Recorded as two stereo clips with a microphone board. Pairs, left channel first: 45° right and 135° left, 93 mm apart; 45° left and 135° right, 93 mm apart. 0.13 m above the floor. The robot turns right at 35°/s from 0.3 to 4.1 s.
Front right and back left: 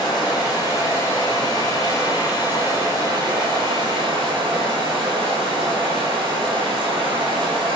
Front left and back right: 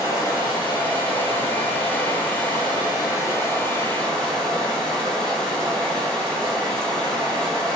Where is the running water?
10° right, 1.1 m; by 7.8 s 125° left, 1.1 m.